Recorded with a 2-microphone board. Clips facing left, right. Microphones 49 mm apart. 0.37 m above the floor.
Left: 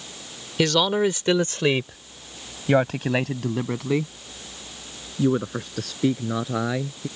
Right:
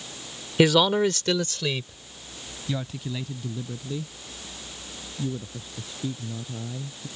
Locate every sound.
0.6 s a man speaking: 15° right (ahead or behind); by 7.1 s 80° left